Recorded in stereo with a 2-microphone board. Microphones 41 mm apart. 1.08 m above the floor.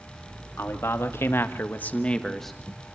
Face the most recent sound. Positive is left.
turn(degrees=-10)  # may be behind; listen again after turning